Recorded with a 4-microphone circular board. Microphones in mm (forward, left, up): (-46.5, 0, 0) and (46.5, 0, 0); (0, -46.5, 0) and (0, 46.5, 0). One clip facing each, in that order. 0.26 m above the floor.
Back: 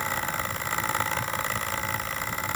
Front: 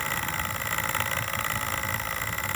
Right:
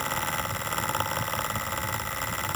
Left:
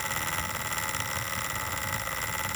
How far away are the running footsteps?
No running footsteps in this recording.